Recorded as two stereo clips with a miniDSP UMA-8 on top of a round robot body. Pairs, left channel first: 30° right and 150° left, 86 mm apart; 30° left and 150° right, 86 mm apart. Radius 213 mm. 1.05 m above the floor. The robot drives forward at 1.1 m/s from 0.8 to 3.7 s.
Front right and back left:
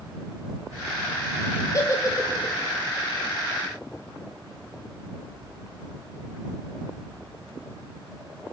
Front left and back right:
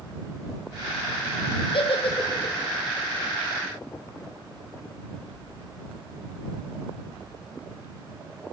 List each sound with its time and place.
1.7 s a giggle: 20° left, 5 m; by 2.5 s 25° left, 4.5 m